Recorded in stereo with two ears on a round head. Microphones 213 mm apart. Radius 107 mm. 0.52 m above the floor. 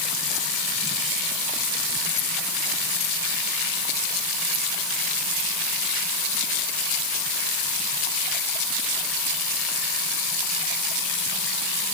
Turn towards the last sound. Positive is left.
No sound to turn to.